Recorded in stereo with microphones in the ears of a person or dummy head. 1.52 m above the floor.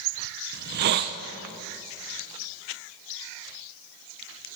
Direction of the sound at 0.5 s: 55° right (ahead or behind).